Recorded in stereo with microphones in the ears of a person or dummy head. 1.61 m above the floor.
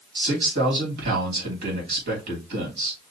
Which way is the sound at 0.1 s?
60° right (ahead or behind).